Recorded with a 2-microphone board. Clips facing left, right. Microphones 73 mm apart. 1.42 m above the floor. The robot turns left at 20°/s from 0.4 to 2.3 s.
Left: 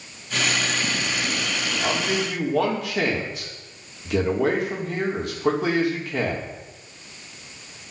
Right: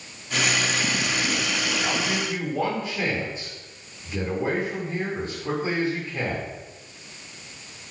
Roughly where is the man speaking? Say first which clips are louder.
Left 2 dB; left.